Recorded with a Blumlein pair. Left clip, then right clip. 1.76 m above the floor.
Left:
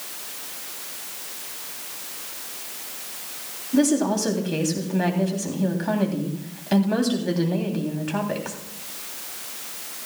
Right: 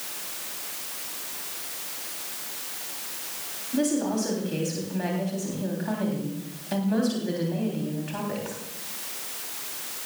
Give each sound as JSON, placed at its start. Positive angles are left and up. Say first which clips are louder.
{"t": 3.7, "sound": "a woman speaking", "louder": "left 5 dB", "azimuth_deg": 20, "distance_m": 3.5}